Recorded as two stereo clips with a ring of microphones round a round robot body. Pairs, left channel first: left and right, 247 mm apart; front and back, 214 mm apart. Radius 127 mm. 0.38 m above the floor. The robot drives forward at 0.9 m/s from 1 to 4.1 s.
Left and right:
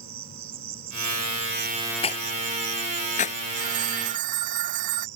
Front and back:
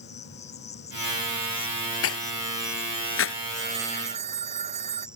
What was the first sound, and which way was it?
An insect, 65° right.